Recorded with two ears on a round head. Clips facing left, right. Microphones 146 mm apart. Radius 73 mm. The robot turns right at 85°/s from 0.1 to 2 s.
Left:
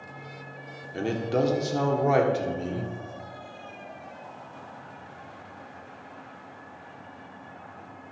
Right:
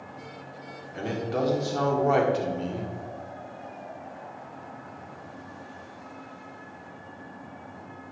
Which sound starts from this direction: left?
A man speaking, at 0.9 s.